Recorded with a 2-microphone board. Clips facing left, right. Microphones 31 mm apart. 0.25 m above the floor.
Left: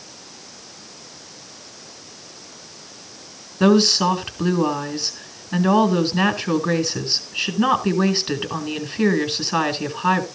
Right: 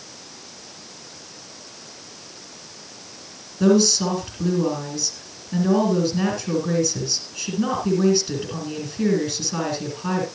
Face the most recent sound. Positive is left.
turn(degrees=45)  # may be behind; listen again after turning